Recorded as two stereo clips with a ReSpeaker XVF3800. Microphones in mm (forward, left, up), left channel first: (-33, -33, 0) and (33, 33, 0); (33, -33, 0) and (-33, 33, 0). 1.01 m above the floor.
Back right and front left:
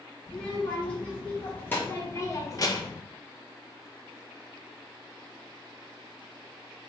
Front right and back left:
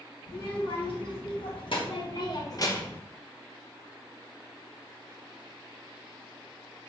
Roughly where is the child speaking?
Ahead right.